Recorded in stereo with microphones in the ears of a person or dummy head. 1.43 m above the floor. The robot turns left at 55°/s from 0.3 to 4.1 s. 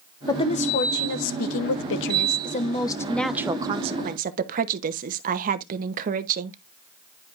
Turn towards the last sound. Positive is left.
turn(degrees=-45)